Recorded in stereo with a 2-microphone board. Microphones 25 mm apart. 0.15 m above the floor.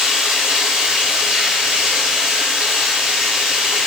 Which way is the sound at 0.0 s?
75° right (ahead or behind).